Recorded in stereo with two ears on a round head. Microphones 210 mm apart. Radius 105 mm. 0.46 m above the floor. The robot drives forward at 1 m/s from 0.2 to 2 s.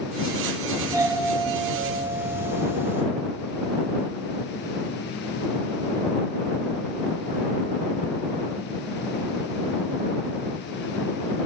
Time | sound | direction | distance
0.8 | a doorbell | 15° right (ahead or behind) | 1.2 m